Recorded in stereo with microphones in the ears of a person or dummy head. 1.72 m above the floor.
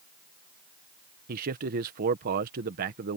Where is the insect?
I don't hear an insect.